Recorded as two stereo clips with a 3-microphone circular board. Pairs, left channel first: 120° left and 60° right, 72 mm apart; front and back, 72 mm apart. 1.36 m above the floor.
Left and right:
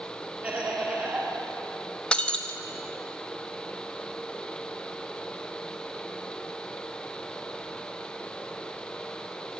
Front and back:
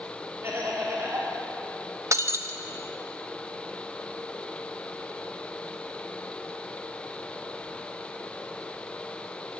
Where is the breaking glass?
170° right, 0.7 m.